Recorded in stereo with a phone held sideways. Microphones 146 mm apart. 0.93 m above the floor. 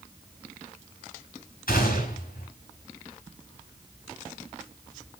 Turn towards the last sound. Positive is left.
turn(degrees=75)  # may be behind; listen again after turning